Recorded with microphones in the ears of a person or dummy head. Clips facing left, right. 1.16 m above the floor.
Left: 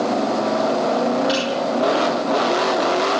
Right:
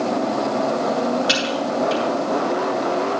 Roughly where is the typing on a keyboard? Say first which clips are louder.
Left 2 dB; right.